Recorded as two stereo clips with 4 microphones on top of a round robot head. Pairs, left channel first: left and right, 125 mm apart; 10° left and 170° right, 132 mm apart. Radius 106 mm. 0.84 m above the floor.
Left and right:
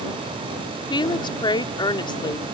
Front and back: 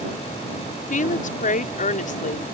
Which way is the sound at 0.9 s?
35° left.